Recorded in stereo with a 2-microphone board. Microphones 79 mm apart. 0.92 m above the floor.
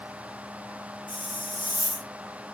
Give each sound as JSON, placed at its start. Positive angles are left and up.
{"t": 1.1, "sound": "a hiss", "side_deg": 85, "distance_m": 3.0}